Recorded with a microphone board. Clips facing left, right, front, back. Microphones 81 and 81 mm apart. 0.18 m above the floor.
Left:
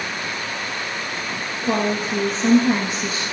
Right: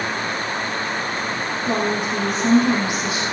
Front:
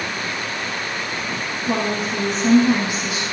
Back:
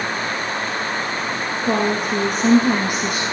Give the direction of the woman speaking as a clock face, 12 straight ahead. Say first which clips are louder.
Left 1 dB, back 3 dB; 7 o'clock.